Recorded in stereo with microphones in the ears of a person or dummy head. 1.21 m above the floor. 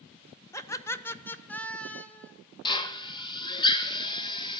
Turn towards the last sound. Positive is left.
turn(degrees=20)  # may be behind; listen again after turning